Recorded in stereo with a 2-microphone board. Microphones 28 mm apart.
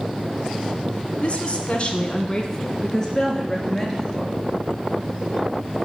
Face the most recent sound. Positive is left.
turn(degrees=10)  # may be behind; listen again after turning